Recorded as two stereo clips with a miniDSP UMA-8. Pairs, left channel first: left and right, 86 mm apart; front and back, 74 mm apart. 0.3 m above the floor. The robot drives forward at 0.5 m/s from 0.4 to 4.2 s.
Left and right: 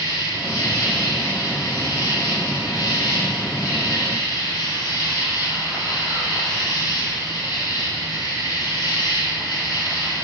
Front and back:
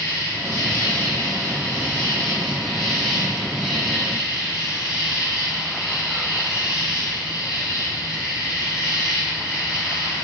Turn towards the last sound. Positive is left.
turn(degrees=100)